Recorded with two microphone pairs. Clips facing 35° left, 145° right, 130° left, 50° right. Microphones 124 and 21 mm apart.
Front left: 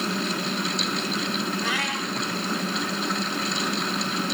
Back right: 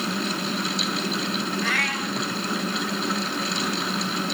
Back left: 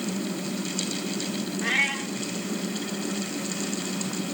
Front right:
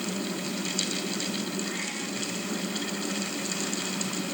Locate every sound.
1.6 s a cat meowing: 110° left, 3.5 m